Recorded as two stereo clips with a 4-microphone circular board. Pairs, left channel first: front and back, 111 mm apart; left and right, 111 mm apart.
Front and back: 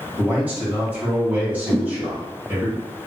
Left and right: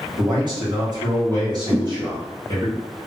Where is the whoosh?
75° right, 1.8 m.